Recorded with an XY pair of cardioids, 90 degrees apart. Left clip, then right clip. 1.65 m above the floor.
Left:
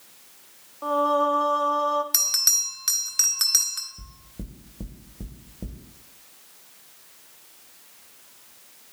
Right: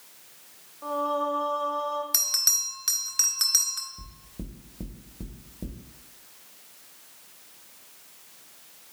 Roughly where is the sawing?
No sawing in this recording.